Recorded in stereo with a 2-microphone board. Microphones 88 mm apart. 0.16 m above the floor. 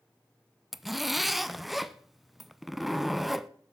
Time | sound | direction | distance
0.7 | a zipper | centre (ahead or behind) | 0.5 m